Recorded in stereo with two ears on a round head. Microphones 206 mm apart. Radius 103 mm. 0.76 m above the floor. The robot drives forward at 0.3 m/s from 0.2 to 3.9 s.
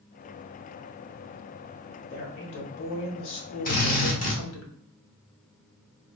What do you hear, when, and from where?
2.1 s a woman speaking: 50° left (ahead or behind), 1.2 m; by 4.7 s 60° left (ahead or behind), 1.0 m
3.6 s a drill: 40° left (ahead or behind), 1.4 m